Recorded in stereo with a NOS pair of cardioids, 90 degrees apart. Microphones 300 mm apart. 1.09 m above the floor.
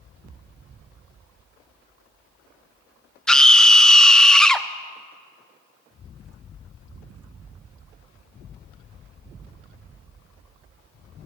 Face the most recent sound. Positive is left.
turn(degrees=5)